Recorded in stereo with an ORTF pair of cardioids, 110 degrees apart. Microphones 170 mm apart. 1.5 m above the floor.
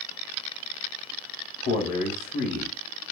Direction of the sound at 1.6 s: 60° left.